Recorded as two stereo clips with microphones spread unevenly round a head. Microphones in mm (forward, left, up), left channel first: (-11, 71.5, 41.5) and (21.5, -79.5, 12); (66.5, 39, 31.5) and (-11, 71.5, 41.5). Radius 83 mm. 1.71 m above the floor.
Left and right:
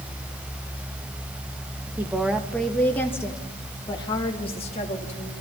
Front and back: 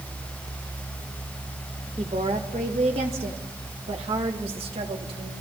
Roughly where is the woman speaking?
Behind.